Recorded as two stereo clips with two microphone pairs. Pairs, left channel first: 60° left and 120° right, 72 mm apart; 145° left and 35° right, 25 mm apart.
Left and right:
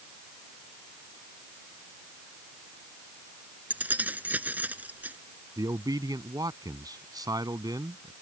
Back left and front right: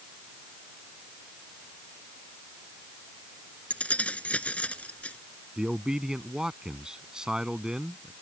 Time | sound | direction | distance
3.7 | keys jangling | 175° left | ?
5.6 | a man speaking | 95° right | ?